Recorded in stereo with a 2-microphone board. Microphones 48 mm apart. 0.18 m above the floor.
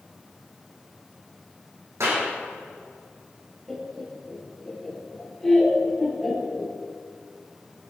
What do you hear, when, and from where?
2.0 s a clap: 85° right, 7 m
3.7 s laughter: 5° left (ahead or behind), 3.5 m